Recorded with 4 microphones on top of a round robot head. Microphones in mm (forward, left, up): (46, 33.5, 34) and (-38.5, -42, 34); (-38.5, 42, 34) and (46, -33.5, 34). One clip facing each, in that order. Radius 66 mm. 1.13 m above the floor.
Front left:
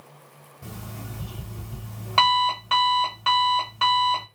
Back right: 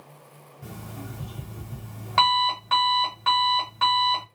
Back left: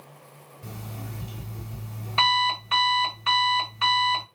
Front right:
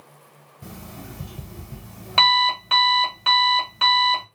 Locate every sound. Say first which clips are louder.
0.6 s an alarm clock: even, front right 1 dB; 35° right, 1.5 m